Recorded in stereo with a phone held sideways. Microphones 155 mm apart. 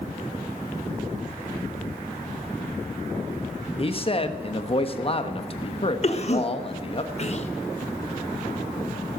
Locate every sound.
3.8 s a man speaking: 35° left (ahead or behind), 1.2 m
6.0 s a cough: 45° left (ahead or behind), 1.4 m